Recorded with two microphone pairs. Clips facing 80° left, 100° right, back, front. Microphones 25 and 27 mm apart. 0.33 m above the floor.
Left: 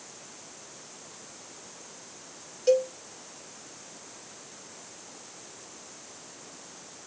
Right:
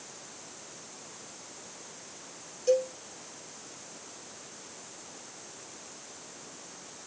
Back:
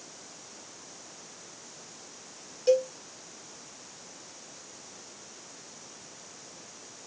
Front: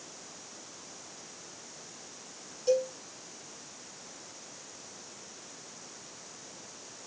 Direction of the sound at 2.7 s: 125° left.